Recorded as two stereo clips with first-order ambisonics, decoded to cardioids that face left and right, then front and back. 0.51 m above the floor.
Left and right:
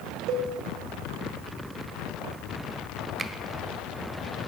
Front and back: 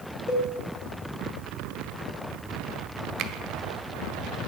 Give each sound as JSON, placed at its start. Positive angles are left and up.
{"t": 0.3, "sound": "a cowbell", "azimuth_deg": -70, "distance_m": 2.5}
{"t": 3.2, "sound": "a finger snap", "azimuth_deg": -160, "distance_m": 0.8}